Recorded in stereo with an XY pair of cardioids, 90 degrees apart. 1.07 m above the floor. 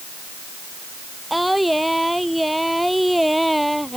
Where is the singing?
5° right.